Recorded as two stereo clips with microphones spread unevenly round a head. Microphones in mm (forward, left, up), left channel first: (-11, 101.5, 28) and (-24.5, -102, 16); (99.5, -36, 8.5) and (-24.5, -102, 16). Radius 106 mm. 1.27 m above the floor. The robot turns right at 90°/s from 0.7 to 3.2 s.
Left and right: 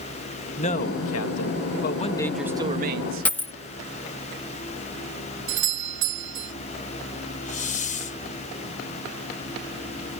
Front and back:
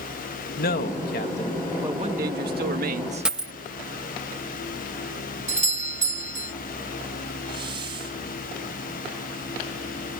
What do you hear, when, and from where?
0.6 s a man speaking: 25° left; by 3.3 s 110° right
3.2 s a dropped coin: 145° left
5.5 s a doorbell: 120° right
7.5 s a hiss: 140° left